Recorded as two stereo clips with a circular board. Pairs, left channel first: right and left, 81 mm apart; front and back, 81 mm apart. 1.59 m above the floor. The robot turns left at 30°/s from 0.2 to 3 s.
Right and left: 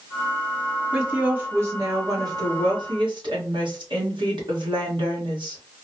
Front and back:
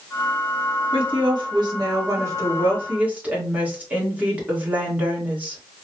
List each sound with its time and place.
0.9 s a woman speaking: 170° left, 1.8 m; by 5.6 s 110° left, 1.8 m